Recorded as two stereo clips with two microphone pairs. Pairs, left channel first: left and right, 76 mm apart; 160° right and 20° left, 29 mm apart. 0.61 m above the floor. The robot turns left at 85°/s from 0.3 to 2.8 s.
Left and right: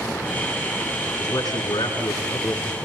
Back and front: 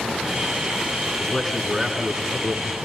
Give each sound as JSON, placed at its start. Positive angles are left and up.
{"t": 1.2, "sound": "a man speaking", "azimuth_deg": 150, "distance_m": 8.5}